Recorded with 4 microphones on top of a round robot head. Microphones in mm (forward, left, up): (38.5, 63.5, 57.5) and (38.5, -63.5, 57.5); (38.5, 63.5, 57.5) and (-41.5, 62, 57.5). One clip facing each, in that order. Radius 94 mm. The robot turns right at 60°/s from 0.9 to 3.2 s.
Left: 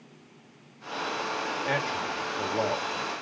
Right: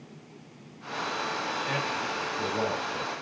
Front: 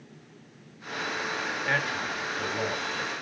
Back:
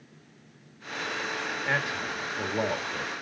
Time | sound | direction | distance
1.6 | a man speaking | 100° left | 1.5 m